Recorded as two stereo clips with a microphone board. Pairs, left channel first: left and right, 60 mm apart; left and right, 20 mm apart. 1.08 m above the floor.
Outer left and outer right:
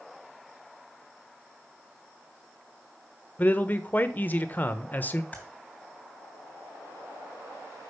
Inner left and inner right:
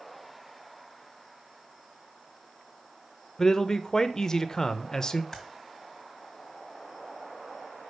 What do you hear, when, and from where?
3.4 s a man speaking: 30° left (ahead or behind), 0.6 m
5.3 s typing on a keyboard: 25° left (ahead or behind), 3 m